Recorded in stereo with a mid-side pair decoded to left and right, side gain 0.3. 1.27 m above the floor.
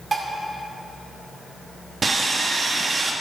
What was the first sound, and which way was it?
Dishes clattering, 50° right.